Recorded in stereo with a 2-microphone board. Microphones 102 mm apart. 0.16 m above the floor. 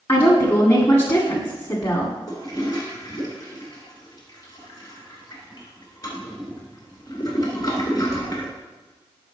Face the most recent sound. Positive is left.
turn(degrees=40)  # may be behind; listen again after turning